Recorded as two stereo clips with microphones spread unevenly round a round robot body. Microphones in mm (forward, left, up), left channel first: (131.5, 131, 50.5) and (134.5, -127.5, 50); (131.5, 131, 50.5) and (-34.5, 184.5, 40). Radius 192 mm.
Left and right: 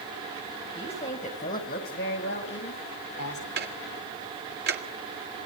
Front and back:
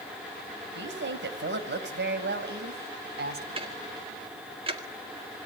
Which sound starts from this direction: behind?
A woman speaking, at 0.8 s.